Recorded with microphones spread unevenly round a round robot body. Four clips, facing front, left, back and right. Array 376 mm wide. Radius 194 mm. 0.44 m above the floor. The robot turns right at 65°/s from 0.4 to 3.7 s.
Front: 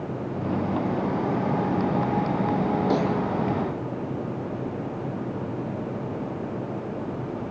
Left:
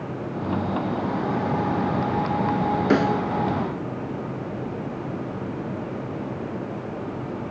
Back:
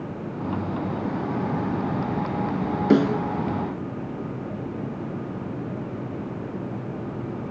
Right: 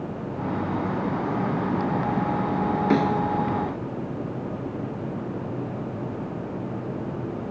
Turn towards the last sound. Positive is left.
turn(degrees=-135)